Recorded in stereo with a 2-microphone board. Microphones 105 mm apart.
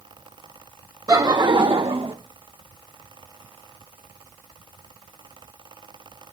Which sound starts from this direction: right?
Laughter, at 1.1 s.